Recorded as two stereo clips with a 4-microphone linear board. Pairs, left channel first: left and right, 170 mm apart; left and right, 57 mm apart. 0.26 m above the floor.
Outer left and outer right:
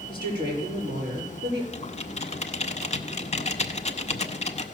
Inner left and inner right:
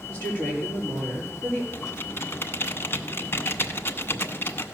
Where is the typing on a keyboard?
40° left (ahead or behind), 0.8 m.